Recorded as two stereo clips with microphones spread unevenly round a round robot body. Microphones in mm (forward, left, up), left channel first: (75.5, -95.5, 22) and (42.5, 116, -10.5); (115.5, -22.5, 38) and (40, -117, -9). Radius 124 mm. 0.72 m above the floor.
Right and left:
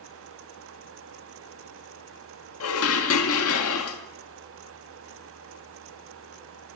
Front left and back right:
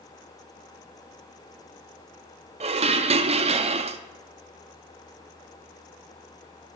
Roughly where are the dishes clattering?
Behind right.